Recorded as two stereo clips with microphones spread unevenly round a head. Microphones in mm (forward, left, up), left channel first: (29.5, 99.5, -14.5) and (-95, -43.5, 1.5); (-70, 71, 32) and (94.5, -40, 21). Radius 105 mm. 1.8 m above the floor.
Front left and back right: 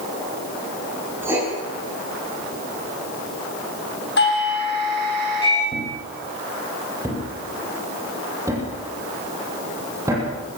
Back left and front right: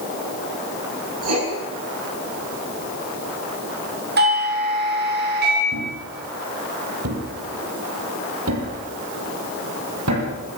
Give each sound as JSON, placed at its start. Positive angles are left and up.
{"t": 1.2, "sound": "writing", "azimuth_deg": -50, "distance_m": 8.5}
{"t": 4.2, "sound": "a doorbell", "azimuth_deg": 5, "distance_m": 8.5}
{"t": 5.7, "sound": "a thud", "azimuth_deg": -55, "distance_m": 8.5}